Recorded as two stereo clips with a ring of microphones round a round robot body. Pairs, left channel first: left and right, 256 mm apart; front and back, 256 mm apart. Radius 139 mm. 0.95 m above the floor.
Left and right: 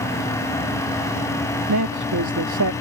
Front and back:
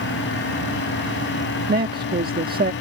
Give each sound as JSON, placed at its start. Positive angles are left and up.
{"t": 1.7, "sound": "a man speaking", "azimuth_deg": -125}